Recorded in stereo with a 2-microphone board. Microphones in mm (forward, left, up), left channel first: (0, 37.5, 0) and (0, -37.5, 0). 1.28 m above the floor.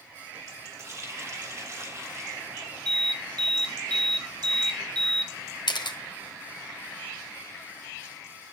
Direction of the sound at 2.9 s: 70° right (ahead or behind).